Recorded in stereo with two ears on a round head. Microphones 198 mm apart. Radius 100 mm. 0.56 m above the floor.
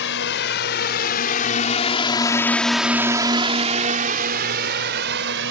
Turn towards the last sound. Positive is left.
turn(degrees=-60)  # may be behind; listen again after turning